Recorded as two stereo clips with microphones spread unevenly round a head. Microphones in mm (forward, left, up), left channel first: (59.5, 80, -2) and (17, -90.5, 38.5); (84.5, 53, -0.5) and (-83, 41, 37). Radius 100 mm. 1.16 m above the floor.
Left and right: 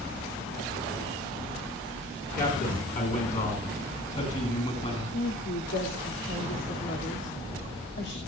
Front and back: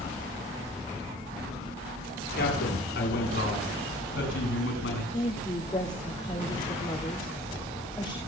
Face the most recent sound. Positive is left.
turn(degrees=70)